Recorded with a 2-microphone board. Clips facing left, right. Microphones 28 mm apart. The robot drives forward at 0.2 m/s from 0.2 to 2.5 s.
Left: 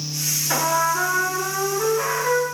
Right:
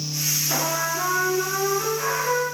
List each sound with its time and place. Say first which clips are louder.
0.5 s a trumpet: left 7 dB; 60° left (ahead or behind), 0.6 m; by 2.4 s 40° left (ahead or behind), 0.9 m